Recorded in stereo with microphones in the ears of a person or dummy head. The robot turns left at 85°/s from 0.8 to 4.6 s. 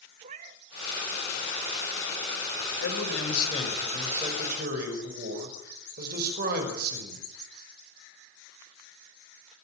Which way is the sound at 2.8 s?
100° left.